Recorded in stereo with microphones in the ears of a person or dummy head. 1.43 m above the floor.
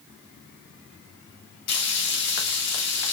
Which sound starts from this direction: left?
Frying, at 1.7 s.